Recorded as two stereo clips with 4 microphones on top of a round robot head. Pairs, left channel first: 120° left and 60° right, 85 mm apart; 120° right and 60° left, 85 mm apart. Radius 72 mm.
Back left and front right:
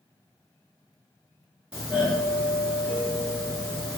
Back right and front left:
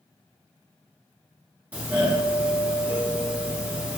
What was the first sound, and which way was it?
A doorbell, 10° left.